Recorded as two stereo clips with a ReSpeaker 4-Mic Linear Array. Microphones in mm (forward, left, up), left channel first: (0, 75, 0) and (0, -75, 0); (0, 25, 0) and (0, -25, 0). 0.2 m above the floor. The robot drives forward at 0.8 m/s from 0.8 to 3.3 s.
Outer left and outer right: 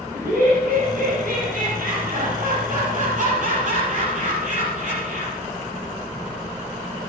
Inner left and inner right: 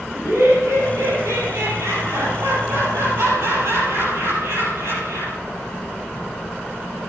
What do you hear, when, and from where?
0.1 s laughter: 70° right (ahead or behind), 5 m; by 5.4 s 60° right (ahead or behind), 5.5 m